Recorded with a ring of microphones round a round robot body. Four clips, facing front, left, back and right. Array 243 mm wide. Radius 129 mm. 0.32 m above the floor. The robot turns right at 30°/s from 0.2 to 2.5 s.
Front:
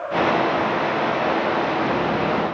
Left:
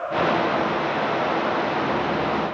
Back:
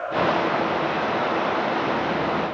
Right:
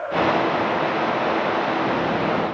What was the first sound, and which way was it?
Only background noise.